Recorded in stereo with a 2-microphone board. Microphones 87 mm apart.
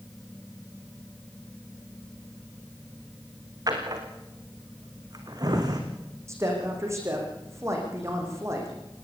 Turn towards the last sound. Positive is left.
turn(degrees=-35)  # may be behind; listen again after turning